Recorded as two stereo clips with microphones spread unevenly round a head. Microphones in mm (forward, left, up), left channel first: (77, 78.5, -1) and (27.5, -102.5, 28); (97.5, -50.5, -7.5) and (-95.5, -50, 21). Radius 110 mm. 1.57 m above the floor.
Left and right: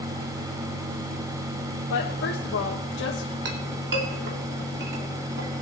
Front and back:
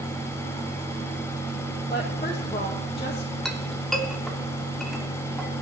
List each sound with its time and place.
1.9 s a woman speaking: 70° left, 1.8 m
3.5 s a clink: 90° right, 2.5 m